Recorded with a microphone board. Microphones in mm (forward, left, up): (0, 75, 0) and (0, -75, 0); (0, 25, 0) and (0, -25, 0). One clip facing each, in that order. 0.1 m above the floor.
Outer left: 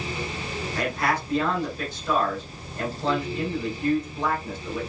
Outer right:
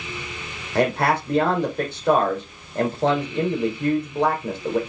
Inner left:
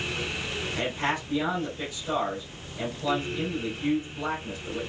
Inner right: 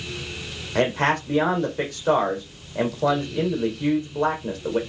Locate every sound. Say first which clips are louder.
0.8 s a man speaking: outer right 7 dB, inner right 9 dB; 65° right (ahead or behind), 4 m